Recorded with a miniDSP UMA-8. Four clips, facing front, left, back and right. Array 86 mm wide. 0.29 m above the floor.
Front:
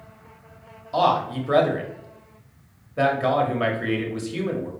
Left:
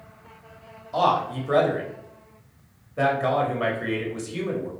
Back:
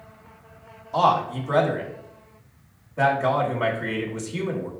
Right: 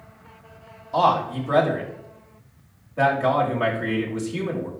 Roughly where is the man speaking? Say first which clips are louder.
Right 2 dB, even; ahead.